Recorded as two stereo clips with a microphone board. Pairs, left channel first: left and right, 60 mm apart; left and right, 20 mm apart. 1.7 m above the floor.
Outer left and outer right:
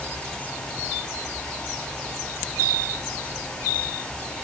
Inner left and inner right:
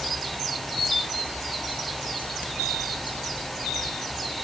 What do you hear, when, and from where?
Only background noise.